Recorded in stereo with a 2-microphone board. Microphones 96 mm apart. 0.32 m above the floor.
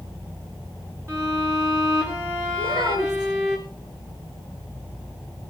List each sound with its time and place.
1.1 s a violin: 25° right (ahead or behind), 3 m
2.6 s a child speaking: 55° right (ahead or behind), 5 m